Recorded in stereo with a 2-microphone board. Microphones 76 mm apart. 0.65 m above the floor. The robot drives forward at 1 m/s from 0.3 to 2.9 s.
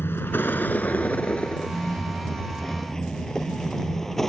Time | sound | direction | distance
0.0 | a vehicle | 30° left (ahead or behind) | ?